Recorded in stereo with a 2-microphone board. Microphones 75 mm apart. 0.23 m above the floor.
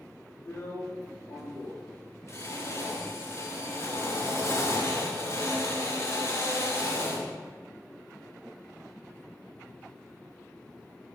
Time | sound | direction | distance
0.5 | a drill | 40° left (ahead or behind) | 3 m